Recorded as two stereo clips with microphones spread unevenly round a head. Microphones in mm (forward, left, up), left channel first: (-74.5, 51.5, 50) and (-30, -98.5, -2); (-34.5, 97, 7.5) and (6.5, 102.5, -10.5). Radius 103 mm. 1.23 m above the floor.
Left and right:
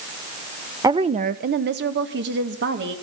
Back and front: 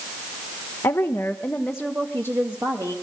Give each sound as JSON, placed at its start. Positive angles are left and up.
{"t": 0.8, "sound": "a woman speaking", "azimuth_deg": -145, "distance_m": 0.6}